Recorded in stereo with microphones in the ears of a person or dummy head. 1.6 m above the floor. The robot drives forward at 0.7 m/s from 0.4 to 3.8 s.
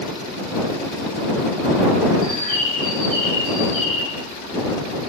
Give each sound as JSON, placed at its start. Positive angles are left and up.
{"t": 2.2, "sound": "a bird", "side_deg": -25, "distance_m": 3.5}